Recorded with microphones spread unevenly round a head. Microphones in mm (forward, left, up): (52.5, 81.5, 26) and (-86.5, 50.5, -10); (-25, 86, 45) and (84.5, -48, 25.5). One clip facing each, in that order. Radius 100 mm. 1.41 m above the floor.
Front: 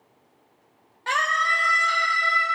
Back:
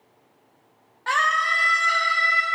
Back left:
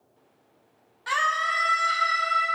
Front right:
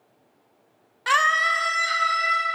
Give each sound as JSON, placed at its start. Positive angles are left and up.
{"t": 1.1, "sound": "a scream", "azimuth_deg": -65, "distance_m": 1.1}